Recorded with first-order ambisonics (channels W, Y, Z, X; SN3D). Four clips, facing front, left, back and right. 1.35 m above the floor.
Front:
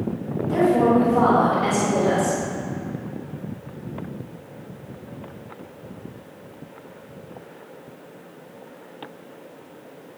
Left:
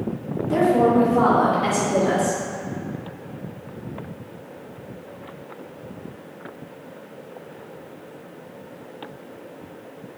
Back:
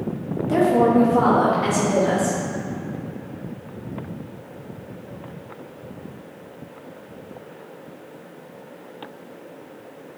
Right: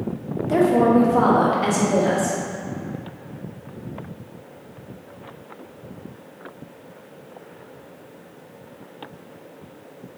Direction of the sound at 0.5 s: 125° right.